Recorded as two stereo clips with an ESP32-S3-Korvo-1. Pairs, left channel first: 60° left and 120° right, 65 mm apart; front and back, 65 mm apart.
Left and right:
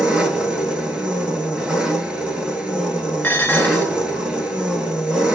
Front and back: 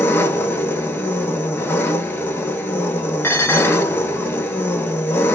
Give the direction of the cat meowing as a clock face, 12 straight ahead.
I don't hear a cat meowing.